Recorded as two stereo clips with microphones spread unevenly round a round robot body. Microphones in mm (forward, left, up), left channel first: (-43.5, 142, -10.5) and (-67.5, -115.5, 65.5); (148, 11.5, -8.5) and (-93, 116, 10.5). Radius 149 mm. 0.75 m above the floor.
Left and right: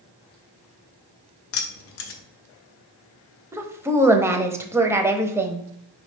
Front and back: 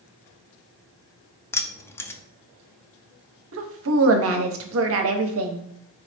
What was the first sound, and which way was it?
Keys jangling, 55° left.